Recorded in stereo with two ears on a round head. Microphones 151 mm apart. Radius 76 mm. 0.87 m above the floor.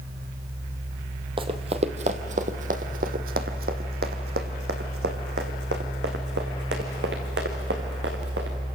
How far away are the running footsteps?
About 1.5 m.